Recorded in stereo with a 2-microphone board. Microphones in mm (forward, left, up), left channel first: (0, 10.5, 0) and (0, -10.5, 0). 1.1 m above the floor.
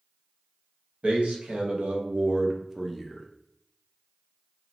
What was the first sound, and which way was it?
A man speaking, 85° right.